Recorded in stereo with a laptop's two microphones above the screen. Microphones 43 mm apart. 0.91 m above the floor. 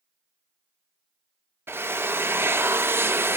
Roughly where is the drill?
Right.